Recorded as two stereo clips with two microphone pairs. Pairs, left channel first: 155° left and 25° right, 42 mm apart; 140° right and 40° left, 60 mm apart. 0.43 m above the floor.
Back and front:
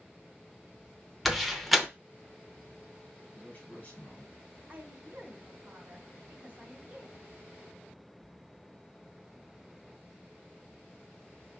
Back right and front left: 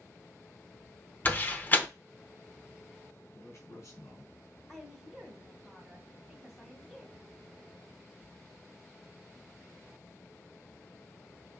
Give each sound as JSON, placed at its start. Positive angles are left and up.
{"t": 1.2, "sound": "a door slam", "azimuth_deg": -115, "distance_m": 0.6}
{"t": 3.3, "sound": "a man speaking", "azimuth_deg": -155, "distance_m": 1.8}
{"t": 4.7, "sound": "a woman speaking", "azimuth_deg": -65, "distance_m": 1.5}